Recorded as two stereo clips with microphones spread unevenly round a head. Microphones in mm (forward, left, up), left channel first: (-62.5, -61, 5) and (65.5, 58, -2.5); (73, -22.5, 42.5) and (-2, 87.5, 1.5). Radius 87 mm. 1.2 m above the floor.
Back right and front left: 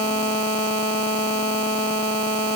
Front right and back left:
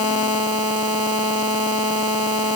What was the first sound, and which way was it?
Only background noise.